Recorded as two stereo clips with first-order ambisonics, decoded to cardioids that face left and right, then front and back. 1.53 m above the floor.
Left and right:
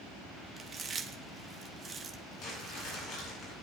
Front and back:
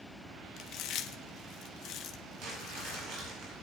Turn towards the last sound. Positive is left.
turn(degrees=145)